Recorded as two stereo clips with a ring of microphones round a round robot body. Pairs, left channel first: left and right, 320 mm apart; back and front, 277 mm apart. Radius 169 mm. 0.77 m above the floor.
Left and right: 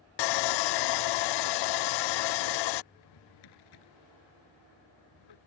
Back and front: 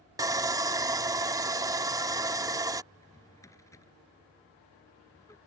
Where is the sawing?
80° left.